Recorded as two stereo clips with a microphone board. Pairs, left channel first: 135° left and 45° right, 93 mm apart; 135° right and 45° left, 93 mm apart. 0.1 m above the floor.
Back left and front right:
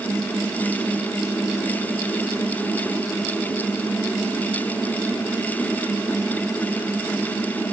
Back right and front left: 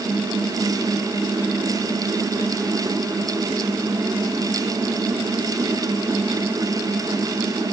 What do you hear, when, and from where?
Only background noise.